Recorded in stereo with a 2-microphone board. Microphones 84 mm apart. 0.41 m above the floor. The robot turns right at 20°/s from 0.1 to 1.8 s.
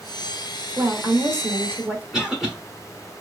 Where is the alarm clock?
I don't hear an alarm clock.